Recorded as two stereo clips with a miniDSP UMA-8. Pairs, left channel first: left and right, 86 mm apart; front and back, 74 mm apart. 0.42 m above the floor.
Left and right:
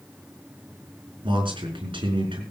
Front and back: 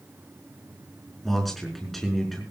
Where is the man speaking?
85° right, 5 m.